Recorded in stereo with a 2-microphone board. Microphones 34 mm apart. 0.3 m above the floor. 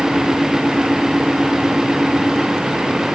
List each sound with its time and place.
Only background noise.